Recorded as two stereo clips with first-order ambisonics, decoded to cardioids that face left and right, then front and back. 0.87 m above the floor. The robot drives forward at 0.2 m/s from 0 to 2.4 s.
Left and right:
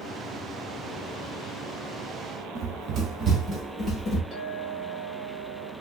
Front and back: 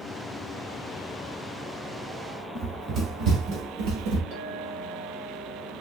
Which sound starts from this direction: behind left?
A clink, at 4.3 s.